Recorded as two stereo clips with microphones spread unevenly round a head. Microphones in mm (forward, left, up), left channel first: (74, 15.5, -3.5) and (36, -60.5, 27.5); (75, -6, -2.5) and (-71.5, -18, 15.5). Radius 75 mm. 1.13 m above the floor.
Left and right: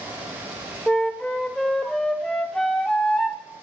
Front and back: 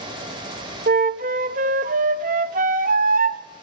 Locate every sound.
0.9 s a flute: 160° left, 0.6 m